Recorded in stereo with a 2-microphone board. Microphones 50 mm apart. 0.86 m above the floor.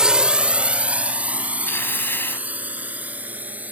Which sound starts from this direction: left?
Tearing paper, at 1.7 s.